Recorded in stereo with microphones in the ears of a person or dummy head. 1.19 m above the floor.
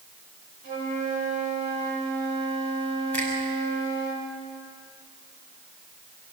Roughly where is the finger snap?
Centre.